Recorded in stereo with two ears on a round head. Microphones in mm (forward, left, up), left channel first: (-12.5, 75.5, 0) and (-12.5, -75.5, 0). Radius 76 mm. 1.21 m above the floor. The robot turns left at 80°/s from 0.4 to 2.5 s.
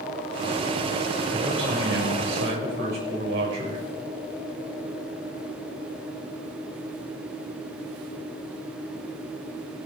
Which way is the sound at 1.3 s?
15° right.